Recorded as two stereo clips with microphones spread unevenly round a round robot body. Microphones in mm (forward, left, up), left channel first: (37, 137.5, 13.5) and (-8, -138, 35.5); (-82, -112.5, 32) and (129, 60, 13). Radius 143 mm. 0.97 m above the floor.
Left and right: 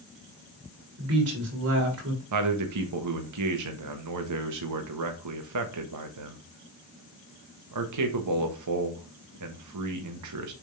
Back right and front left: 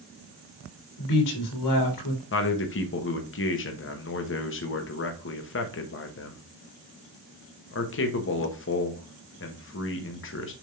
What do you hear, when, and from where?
1.0 s a woman speaking: 140° right, 3 m
2.3 s a man speaking: 100° right, 1.2 m